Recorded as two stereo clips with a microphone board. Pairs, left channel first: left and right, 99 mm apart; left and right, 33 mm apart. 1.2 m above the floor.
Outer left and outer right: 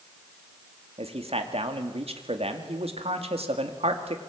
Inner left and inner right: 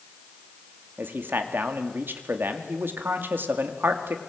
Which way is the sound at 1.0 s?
80° right.